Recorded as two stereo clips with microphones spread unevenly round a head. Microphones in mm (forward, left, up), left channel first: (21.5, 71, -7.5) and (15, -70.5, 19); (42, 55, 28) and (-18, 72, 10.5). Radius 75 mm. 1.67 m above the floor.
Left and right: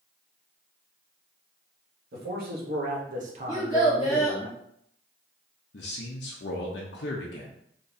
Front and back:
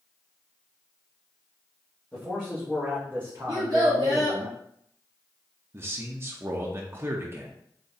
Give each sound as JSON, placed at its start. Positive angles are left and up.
{"t": 2.1, "sound": "a man speaking", "azimuth_deg": -95, "distance_m": 1.7}
{"t": 3.5, "sound": "a child speaking", "azimuth_deg": 160, "distance_m": 1.9}
{"t": 5.7, "sound": "a man speaking", "azimuth_deg": 110, "distance_m": 0.6}